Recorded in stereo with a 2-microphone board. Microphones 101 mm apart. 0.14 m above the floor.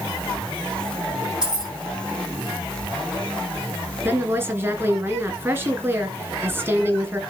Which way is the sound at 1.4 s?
10° right (ahead or behind).